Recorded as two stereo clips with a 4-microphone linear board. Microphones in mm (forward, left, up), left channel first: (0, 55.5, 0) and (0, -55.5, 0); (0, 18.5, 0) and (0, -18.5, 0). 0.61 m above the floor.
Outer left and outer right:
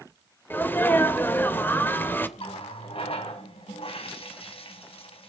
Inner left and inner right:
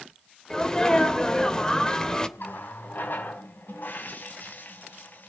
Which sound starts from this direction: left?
A running tap, at 2.4 s.